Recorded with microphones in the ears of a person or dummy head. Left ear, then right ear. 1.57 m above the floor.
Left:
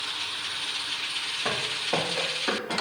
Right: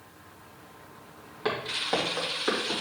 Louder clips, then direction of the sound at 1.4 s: Right 2 dB; 15° right (ahead or behind).